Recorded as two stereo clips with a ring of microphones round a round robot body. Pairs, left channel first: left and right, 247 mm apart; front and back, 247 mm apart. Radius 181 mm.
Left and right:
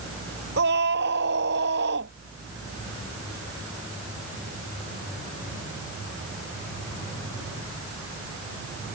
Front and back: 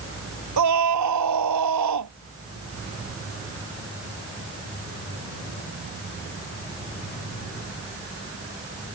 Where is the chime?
No chime in this recording.